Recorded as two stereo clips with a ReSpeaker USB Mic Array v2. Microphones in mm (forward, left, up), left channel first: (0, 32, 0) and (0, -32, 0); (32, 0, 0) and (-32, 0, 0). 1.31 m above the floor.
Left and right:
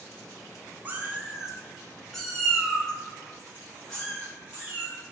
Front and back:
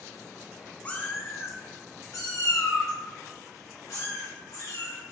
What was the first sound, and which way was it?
A cat meowing, 50° right.